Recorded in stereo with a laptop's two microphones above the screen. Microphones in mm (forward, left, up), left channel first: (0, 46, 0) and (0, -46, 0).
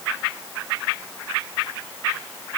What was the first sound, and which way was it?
Only background noise.